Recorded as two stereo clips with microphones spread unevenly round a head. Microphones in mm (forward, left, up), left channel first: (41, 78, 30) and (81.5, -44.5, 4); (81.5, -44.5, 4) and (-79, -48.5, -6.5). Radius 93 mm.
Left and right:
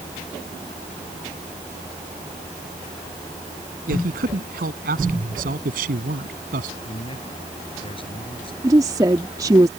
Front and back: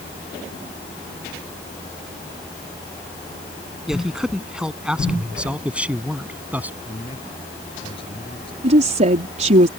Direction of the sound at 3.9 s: 90° right.